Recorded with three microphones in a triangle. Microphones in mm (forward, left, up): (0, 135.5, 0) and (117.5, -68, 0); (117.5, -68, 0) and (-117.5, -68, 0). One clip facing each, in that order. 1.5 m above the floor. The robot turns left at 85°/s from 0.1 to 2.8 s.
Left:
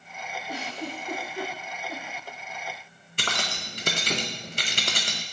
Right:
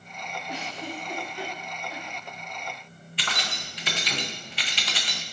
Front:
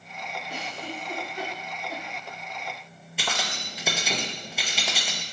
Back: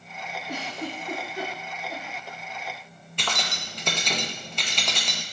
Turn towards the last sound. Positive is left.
turn(degrees=85)